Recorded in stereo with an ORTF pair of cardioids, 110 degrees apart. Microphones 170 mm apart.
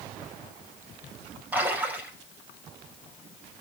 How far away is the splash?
About 5.5 m.